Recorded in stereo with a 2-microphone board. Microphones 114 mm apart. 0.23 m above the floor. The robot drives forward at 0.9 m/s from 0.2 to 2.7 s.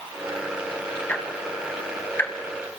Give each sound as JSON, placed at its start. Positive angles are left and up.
{"t": 1.1, "sound": "ticking", "side_deg": 15, "distance_m": 1.8}